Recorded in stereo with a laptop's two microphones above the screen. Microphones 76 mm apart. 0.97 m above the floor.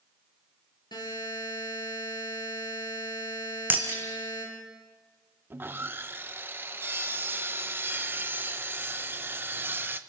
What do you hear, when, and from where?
0.9 s a buzzer: 80° left, 8.5 m
3.7 s breaking glass: 30° right (ahead or behind), 3 m
5.5 s sawing: 30° right (ahead or behind), 0.9 m